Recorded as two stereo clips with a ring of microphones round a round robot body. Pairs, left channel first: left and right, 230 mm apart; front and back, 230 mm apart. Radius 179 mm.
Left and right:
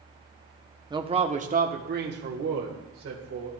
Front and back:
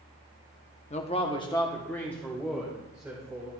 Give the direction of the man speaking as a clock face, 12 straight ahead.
1 o'clock.